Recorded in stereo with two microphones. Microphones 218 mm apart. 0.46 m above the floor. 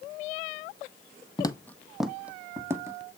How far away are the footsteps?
About 0.5 m.